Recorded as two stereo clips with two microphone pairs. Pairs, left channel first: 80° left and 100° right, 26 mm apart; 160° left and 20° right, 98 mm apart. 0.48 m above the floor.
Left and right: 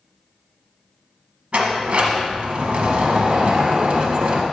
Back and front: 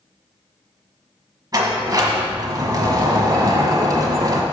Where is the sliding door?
65° right, 1.1 m.